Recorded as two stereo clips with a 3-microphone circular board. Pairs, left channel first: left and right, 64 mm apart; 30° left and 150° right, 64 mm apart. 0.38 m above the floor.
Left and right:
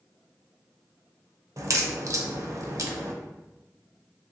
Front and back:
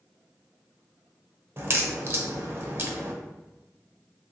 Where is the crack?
105° right, 0.5 m.